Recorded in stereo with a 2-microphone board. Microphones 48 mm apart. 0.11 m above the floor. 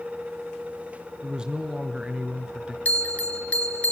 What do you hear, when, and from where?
1.2 s a man speaking: 20° right (ahead or behind), 1.3 m
2.9 s a bell: 30° left (ahead or behind), 0.9 m